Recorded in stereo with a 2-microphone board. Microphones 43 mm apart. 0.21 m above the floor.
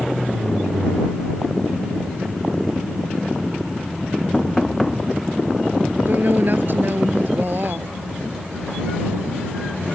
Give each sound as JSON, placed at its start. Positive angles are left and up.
{"t": 4.3, "sound": "knocking", "side_deg": 0}
{"t": 6.1, "sound": "a woman speaking", "side_deg": -55}